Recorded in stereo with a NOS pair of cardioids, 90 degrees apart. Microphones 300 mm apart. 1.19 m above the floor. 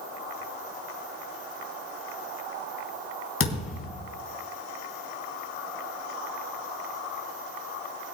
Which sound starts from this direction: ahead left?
A thud, at 3.4 s.